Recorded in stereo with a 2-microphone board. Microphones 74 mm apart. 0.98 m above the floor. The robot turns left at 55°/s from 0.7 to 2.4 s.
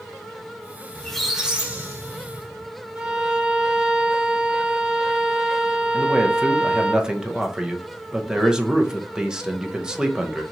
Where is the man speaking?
10° right (ahead or behind), 0.7 m.